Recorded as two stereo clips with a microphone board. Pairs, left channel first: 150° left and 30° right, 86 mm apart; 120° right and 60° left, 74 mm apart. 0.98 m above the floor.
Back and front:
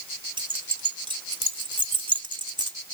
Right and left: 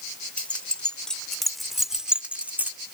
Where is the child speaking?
No child speaking in this recording.